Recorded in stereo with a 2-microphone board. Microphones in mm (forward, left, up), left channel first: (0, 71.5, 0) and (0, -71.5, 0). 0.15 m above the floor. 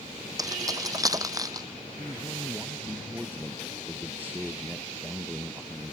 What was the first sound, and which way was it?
Keys jangling, 25° right (ahead or behind).